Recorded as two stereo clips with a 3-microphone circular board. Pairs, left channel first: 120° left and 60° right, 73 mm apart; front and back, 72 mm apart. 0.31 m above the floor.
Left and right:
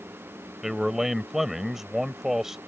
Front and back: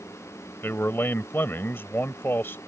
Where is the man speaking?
20° left.